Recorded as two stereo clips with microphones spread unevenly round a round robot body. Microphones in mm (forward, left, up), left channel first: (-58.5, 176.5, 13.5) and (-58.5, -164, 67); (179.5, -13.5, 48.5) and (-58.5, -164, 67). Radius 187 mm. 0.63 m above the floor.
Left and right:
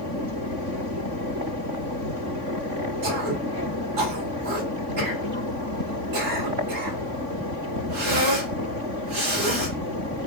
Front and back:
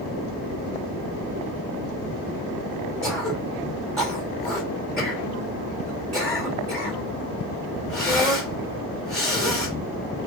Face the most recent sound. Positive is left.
turn(degrees=-55)